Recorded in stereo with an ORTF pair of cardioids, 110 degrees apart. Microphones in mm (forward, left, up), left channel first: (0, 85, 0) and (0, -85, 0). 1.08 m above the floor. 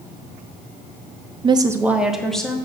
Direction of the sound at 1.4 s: 30° right.